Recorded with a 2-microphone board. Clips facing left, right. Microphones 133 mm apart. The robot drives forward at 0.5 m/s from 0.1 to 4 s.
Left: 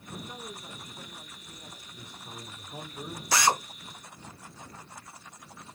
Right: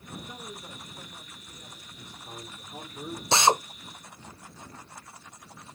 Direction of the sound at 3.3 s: 25° right (ahead or behind).